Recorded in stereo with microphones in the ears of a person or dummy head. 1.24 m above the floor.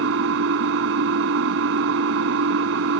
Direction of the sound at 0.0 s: 80° right.